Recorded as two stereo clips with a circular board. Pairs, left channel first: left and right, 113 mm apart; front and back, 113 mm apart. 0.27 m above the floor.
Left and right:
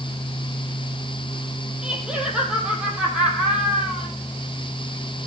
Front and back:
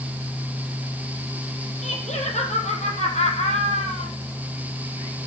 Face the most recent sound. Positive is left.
turn(degrees=-10)